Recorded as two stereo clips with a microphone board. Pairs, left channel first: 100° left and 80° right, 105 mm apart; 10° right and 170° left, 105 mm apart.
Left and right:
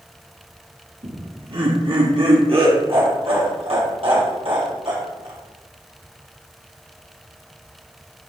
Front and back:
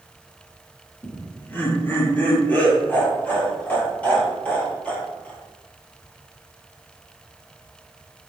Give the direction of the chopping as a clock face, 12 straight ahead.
I don't hear chopping.